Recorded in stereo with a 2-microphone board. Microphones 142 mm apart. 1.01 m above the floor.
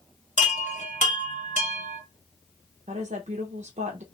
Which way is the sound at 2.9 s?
60° right (ahead or behind).